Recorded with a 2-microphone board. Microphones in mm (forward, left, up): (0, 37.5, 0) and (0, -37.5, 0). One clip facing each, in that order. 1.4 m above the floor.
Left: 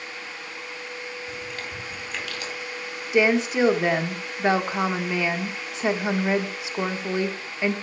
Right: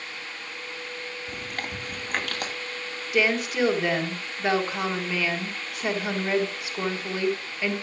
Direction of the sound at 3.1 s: 20° left (ahead or behind).